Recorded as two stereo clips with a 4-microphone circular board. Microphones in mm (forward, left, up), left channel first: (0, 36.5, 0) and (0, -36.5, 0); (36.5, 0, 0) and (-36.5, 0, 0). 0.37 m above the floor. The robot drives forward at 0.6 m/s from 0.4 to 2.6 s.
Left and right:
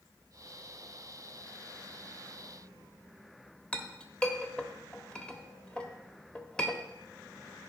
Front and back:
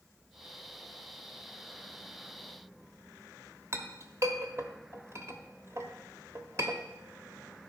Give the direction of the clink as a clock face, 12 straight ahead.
7 o'clock.